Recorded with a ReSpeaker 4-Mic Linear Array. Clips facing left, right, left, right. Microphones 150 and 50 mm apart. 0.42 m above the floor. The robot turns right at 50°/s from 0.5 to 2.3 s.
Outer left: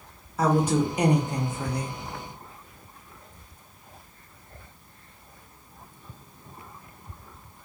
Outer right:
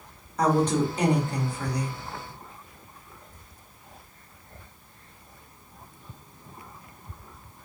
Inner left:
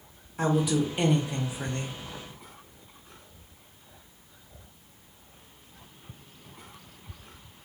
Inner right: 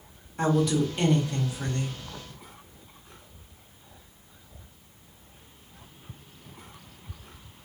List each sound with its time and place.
0.4 s a woman speaking: 5° left (ahead or behind), 0.8 m; by 2.0 s 25° left (ahead or behind), 0.8 m